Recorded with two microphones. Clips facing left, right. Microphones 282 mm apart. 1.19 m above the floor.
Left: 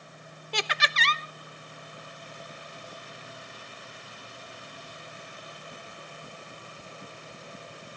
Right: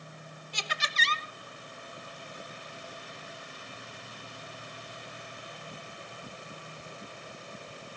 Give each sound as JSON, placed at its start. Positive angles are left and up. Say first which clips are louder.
{"t": 0.5, "sound": "laughter", "louder": "left 8 dB", "side_deg": 75, "distance_m": 0.9}